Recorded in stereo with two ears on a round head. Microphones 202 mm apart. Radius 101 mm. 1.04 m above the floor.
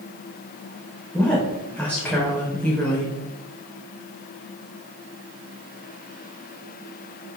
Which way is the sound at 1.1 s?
5° left (ahead or behind).